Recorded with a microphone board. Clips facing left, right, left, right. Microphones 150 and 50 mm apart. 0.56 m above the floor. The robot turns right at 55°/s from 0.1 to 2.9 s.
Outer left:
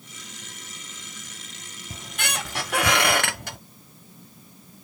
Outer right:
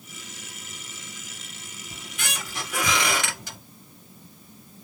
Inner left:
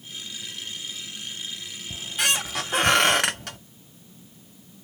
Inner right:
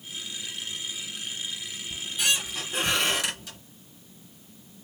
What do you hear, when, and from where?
1.9 s a squeak: 55° left, 0.6 m; by 3.6 s 110° left, 0.6 m